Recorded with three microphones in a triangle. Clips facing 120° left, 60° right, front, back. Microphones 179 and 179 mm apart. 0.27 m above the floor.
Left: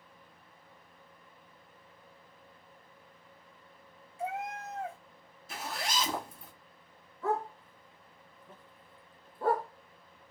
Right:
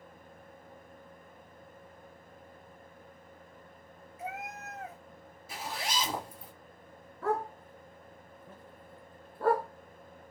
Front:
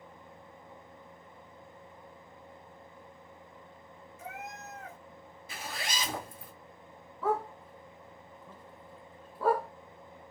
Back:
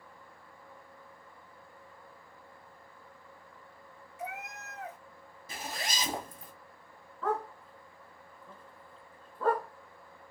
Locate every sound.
4.2 s a cat meowing: 175° left, 0.6 m
5.5 s a zipper: 140° right, 1.8 m
7.2 s a dog barking: 80° right, 0.9 m